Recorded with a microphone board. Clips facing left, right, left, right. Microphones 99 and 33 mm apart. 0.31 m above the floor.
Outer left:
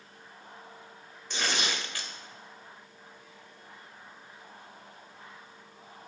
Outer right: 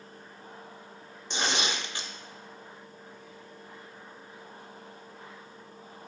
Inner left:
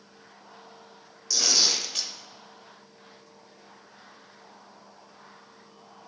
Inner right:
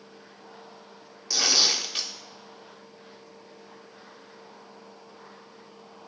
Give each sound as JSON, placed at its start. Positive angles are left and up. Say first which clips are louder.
{"t": 1.3, "sound": "tearing paper", "louder": "outer right 2 dB, inner right 1 dB", "side_deg": -20, "distance_m": 0.6}